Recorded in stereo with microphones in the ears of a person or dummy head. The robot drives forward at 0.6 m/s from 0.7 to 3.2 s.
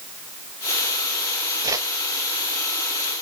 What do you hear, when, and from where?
1.6 s a whoosh: 20° right (ahead or behind), 0.7 m